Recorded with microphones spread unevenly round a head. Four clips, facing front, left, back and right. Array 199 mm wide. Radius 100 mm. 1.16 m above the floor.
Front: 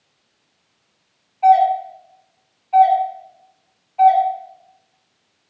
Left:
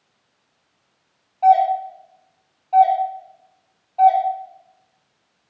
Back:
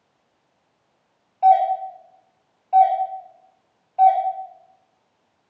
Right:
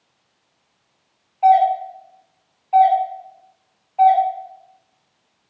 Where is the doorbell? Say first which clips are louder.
Right 1 dB, front 3 dB; 145° left, 3 m.